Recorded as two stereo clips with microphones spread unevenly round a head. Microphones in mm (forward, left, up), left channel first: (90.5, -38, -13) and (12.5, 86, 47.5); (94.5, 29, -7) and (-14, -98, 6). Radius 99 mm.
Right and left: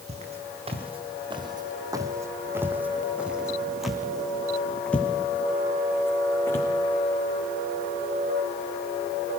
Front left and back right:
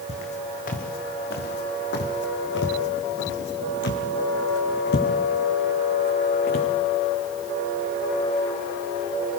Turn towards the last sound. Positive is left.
turn(degrees=20)